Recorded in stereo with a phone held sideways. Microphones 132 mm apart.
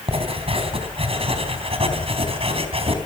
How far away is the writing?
About 3.5 m.